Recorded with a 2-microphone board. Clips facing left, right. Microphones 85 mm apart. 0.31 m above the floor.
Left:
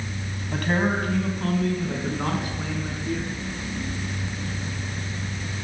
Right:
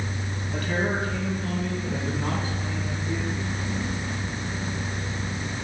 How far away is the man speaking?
About 2.0 m.